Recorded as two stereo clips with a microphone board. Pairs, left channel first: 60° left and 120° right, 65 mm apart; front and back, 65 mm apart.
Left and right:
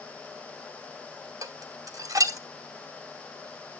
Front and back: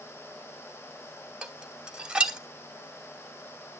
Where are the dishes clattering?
105° right, 1.3 m.